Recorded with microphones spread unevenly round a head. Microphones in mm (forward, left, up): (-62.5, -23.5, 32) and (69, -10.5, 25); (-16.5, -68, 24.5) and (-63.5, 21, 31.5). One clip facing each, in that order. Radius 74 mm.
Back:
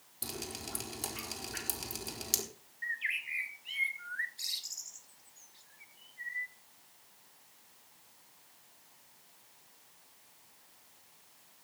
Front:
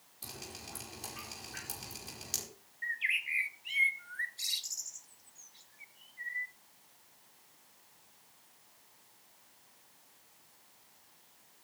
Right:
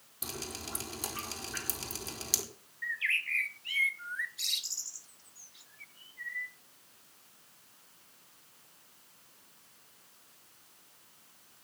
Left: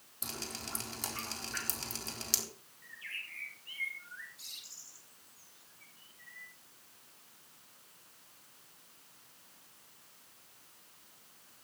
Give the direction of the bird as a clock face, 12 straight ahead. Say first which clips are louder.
Front 1 dB, right 14 dB; 2 o'clock.